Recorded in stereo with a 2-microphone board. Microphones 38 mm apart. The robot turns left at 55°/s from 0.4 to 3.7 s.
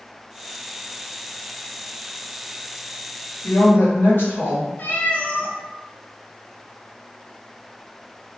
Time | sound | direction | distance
3.4 | a woman speaking | 80° left | 1.1 m
4.8 | a cat meowing | 45° left (ahead or behind) | 0.6 m